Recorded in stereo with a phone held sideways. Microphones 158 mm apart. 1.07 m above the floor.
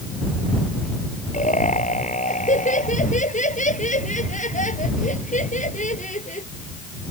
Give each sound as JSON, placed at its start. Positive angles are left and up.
{"t": 1.3, "sound": "laughter", "side_deg": 50}